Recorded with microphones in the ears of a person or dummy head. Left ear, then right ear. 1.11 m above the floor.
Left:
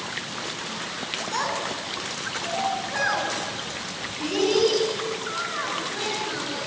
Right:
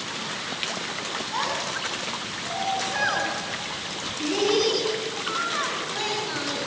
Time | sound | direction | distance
1.3 | a child speaking | 10° left (ahead or behind) | 8 m